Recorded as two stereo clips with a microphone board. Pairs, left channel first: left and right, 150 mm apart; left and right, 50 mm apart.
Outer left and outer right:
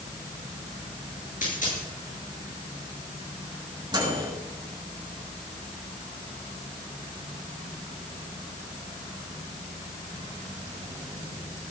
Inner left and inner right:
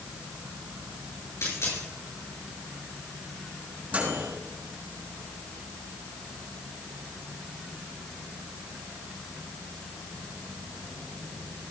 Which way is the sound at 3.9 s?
30° right (ahead or behind).